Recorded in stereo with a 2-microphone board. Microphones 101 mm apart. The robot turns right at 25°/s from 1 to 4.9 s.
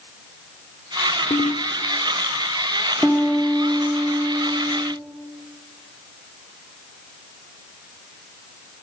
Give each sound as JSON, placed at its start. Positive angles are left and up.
{"t": 1.3, "sound": "a ringtone", "side_deg": 70, "distance_m": 1.5}
{"t": 3.0, "sound": "a piano", "azimuth_deg": 175, "distance_m": 2.0}